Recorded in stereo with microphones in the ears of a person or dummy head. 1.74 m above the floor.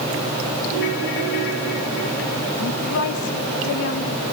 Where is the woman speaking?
70° left (ahead or behind), 2 m.